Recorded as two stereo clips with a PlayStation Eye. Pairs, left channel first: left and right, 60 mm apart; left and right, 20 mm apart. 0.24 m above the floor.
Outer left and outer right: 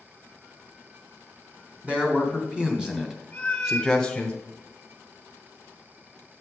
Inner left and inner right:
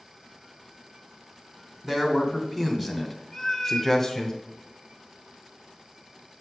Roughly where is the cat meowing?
Centre.